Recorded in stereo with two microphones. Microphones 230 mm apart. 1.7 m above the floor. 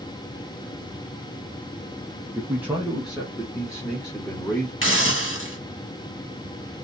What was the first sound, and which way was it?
A man speaking, 10° right (ahead or behind).